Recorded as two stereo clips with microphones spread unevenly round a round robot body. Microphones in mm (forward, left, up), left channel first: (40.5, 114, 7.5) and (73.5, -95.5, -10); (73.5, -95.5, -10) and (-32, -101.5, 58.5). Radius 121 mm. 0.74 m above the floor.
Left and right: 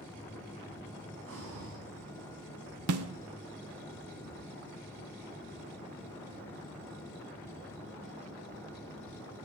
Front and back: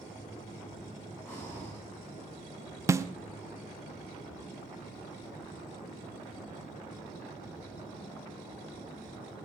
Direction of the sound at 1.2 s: 70° right.